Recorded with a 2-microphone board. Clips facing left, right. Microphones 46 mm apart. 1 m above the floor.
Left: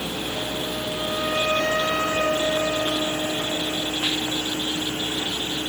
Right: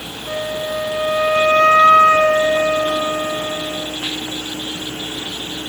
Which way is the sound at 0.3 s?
70° right (ahead or behind).